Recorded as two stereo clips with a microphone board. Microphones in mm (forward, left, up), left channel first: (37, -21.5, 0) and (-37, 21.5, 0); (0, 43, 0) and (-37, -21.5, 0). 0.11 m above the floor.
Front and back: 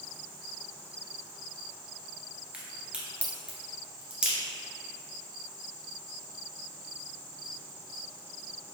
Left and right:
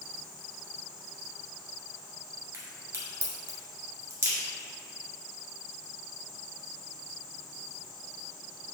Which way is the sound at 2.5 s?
140° right.